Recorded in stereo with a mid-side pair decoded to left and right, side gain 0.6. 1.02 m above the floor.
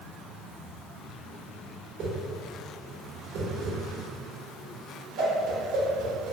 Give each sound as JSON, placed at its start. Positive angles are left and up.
{"t": 2.0, "sound": "a whoosh", "azimuth_deg": -65, "distance_m": 1.0}